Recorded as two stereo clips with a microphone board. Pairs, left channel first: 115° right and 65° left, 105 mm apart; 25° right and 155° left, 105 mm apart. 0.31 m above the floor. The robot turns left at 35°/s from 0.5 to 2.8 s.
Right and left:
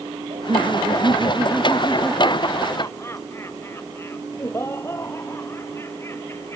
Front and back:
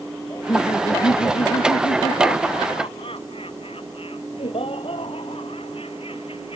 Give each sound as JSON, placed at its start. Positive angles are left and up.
{"t": 0.3, "sound": "laughter", "azimuth_deg": 35}